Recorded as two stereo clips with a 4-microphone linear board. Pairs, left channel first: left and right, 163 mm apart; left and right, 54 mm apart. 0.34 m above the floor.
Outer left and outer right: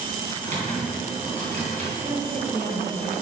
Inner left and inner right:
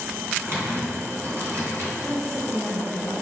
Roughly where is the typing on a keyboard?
Right.